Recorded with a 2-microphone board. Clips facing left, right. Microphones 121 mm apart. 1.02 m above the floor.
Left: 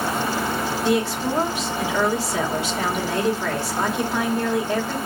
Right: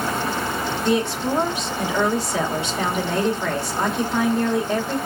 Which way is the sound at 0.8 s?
Centre (ahead or behind).